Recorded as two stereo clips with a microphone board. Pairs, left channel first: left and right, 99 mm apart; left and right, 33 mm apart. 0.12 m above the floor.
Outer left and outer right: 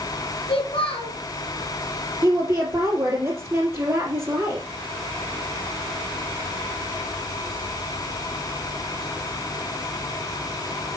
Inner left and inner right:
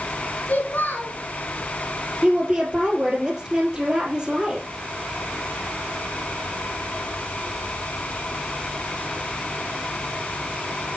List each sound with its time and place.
0.5 s a child speaking: 75° left (ahead or behind), 2.5 m
2.2 s a woman speaking: 25° right (ahead or behind), 3.5 m